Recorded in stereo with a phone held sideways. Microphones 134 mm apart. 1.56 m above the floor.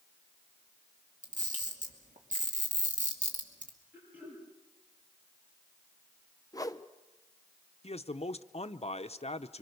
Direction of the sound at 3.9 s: 15° right (ahead or behind).